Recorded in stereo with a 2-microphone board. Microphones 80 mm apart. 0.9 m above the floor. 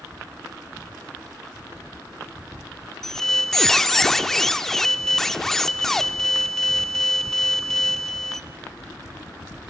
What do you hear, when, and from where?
3.0 s a squeak: 5° left (ahead or behind), 0.5 m